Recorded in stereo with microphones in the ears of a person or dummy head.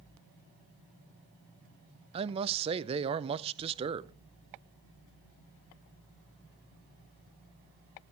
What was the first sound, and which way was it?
A man speaking, 30° right (ahead or behind).